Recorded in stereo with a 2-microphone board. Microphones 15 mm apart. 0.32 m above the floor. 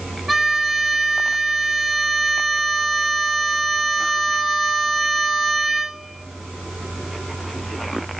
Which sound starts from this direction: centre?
A violin, at 0.3 s.